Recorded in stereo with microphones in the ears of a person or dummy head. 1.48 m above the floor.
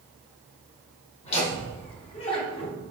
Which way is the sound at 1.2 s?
35° left (ahead or behind).